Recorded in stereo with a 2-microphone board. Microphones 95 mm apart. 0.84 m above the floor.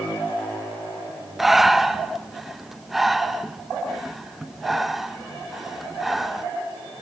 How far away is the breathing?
About 0.9 m.